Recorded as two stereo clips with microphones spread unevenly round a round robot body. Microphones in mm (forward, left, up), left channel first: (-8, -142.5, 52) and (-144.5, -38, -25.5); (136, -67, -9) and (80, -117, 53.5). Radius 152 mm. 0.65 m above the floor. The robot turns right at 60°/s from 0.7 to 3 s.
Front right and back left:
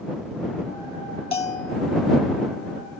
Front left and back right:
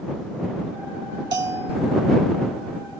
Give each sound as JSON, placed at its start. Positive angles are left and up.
{"t": 1.3, "sound": "a bell", "azimuth_deg": -100}